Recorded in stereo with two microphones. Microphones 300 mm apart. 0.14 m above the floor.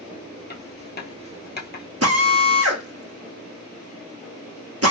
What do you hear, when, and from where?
0.5 s writing: 35° left (ahead or behind), 1.0 m
2.0 s a drill: 55° right (ahead or behind), 1.1 m